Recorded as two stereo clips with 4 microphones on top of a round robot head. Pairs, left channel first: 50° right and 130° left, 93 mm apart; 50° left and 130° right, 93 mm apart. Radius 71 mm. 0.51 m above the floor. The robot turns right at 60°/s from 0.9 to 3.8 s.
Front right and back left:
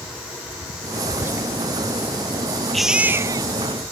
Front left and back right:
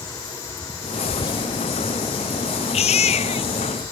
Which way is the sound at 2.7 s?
35° left.